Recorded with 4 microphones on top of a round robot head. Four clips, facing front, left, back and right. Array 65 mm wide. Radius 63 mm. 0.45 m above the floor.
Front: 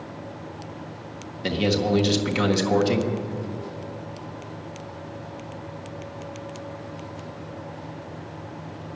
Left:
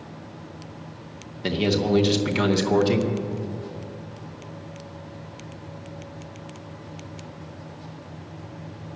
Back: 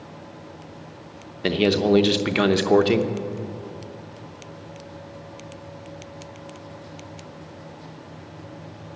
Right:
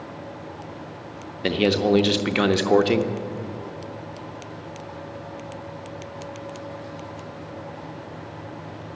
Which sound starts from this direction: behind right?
A man speaking, at 1.4 s.